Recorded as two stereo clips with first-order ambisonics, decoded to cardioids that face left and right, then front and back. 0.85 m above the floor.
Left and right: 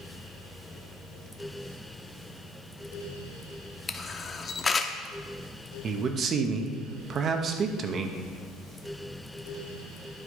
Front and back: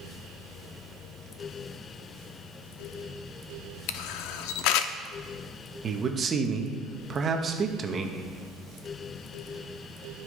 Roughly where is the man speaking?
Behind right.